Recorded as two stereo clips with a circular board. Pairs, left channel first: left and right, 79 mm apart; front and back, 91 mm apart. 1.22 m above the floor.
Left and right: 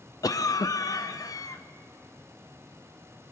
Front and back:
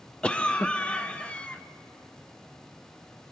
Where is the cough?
75° left, 0.5 m.